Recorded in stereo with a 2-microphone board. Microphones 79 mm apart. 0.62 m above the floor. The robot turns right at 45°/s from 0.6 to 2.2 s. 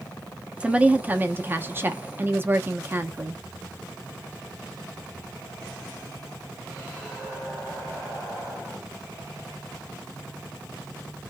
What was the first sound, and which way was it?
A woman speaking, 150° right.